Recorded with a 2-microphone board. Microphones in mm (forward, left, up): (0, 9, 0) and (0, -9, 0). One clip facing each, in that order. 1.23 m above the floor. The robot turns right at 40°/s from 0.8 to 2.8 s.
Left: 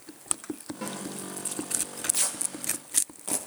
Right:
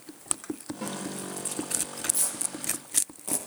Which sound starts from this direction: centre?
A snare drum, at 0.8 s.